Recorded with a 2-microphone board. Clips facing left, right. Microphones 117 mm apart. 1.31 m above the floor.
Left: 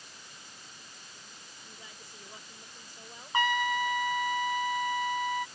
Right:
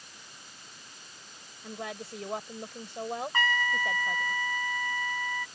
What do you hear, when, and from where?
1.6 s a woman speaking: 85° right
3.3 s a trumpet: 20° left (ahead or behind)